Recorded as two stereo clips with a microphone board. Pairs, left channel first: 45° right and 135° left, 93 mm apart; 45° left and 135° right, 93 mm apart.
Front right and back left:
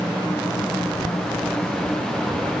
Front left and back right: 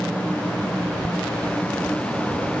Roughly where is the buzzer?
No buzzer in this recording.